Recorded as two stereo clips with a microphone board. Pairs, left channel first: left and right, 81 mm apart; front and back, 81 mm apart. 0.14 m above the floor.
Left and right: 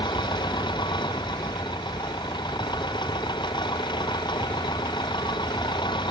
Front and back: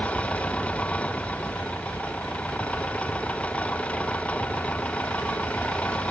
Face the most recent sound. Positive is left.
turn(degrees=75)